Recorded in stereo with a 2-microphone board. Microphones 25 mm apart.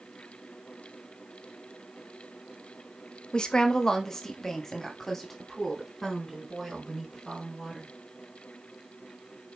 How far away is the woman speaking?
About 1.0 m.